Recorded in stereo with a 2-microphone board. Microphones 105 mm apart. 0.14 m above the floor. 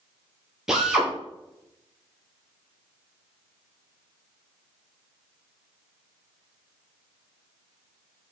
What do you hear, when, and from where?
0.7 s a drill: 5° right (ahead or behind), 3.5 m